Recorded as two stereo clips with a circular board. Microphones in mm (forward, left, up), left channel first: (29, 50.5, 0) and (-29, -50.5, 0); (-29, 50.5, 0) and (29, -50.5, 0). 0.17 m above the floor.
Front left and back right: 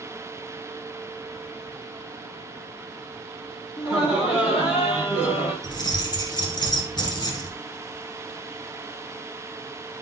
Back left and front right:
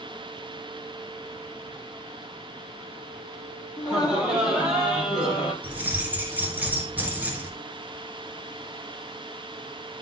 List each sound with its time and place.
3.8 s laughter: 20° left, 6.5 m
5.6 s keys jangling: 15° left, 1.7 m